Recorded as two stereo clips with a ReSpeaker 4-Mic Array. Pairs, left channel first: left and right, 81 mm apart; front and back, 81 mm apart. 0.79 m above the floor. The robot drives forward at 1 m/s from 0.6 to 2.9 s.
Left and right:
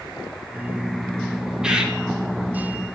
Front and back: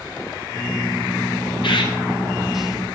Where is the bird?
10° right, 1.7 m.